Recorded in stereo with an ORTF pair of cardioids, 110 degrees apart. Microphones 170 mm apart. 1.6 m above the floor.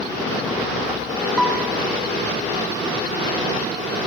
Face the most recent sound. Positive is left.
turn(degrees=-5)